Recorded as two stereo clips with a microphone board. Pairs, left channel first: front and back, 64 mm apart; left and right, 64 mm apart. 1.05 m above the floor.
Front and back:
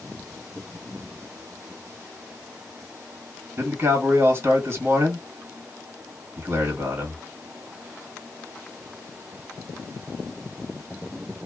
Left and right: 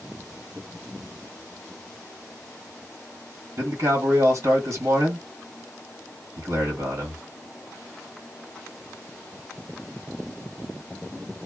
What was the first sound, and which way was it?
A man speaking, 120° right.